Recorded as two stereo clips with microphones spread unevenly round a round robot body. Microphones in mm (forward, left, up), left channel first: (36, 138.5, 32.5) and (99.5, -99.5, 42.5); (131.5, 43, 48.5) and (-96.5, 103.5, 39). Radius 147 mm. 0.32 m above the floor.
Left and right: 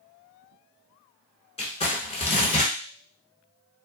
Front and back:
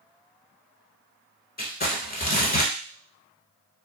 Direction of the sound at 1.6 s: 40° left.